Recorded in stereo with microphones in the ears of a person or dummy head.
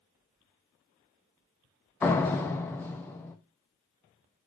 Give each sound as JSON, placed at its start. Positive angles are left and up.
{"t": 2.0, "sound": "a door slam", "side_deg": 10, "distance_m": 0.8}